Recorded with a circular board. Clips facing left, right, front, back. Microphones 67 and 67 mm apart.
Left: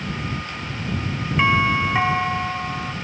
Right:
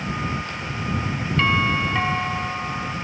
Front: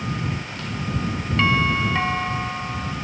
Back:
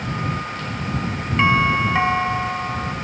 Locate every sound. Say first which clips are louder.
1.4 s a doorbell: left 3 dB, back 3 dB; 140° left